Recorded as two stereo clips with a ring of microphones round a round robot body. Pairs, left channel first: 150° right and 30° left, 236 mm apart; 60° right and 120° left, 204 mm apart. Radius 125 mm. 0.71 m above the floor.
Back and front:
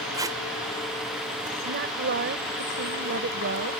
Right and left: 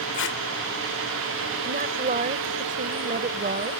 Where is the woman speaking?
75° left.